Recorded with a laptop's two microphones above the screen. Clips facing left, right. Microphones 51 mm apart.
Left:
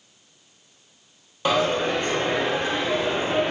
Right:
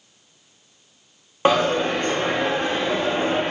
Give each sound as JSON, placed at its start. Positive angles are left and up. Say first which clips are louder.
{"t": 1.4, "sound": "a dropped coin", "louder": "right 3 dB", "side_deg": -40, "distance_m": 0.6}